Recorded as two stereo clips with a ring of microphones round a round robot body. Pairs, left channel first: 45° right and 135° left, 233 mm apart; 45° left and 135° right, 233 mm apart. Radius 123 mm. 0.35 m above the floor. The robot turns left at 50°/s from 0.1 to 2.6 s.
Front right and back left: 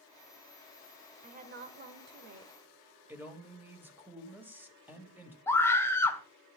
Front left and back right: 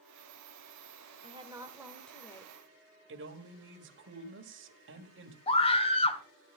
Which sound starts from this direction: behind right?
A man speaking, at 3.1 s.